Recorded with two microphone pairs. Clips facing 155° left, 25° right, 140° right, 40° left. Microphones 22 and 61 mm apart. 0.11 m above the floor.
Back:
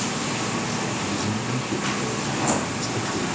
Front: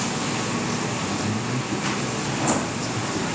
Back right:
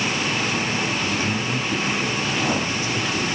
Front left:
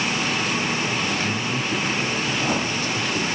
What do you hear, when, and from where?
1.0 s a man speaking: 150° left, 2 m